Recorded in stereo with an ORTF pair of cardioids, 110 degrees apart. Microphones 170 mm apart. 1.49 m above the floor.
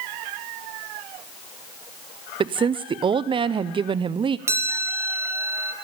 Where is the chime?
15° right, 1.0 m.